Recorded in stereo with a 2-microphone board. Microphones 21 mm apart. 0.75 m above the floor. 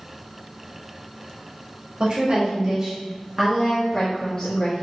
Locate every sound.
2.0 s a woman speaking: 45° right (ahead or behind), 1.4 m; by 4.8 s 40° left (ahead or behind), 1.4 m